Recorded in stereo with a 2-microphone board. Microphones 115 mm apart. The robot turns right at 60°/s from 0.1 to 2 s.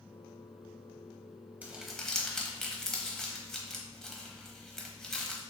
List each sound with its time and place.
1.6 s crumpling: 15° right (ahead or behind), 0.8 m; by 5.4 s 5° left (ahead or behind), 0.8 m